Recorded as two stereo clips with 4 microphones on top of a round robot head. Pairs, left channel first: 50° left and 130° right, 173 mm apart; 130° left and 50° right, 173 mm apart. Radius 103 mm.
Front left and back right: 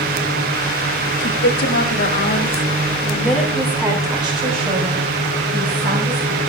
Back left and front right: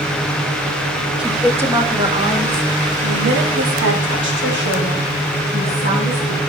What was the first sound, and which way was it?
A woman speaking, 30° left.